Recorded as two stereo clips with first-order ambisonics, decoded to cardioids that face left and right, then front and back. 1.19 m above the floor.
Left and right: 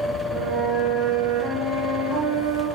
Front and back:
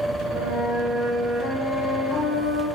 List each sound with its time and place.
0.3 s a flute: 105° right, 1.6 m